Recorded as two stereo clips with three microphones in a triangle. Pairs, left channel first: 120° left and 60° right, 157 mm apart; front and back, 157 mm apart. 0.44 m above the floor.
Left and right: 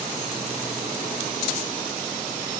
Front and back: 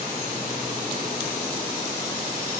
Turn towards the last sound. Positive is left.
No sound to turn to.